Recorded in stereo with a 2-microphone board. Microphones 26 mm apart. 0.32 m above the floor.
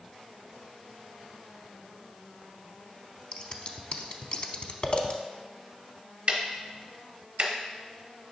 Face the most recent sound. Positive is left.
turn(degrees=-45)  # may be behind; listen again after turning